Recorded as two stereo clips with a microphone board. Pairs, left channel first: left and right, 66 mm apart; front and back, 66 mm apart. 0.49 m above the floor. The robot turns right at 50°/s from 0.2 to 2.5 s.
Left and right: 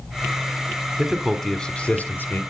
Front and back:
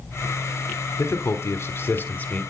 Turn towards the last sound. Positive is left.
turn(degrees=65)